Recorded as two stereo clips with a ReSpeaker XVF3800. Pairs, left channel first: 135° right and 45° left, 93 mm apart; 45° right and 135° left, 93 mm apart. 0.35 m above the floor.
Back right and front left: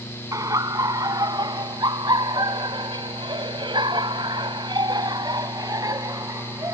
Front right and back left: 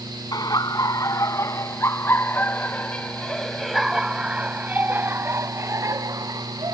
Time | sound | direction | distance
0.3 | laughter | 5° right | ?